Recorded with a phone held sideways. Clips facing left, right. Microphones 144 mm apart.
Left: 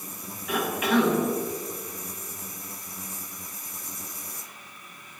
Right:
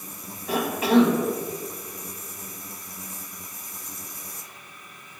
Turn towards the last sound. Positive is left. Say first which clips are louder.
# right 4 dB
turn(degrees=-30)  # may be behind; listen again after turning